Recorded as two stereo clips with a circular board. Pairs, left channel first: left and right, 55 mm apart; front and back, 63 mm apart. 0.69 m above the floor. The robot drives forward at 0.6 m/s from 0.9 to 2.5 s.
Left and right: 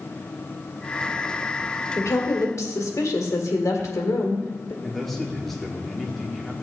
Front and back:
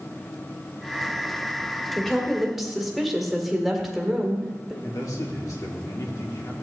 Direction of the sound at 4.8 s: 5° left.